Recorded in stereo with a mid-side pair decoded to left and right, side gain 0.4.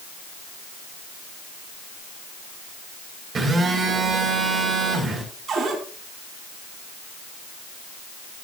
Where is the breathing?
I don't hear breathing.